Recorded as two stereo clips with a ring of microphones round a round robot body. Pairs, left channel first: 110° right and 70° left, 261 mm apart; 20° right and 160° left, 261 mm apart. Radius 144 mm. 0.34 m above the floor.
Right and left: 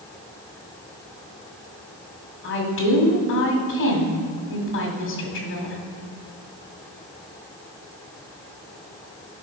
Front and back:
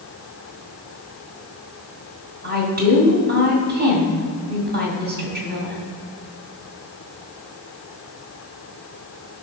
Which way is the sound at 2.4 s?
150° right.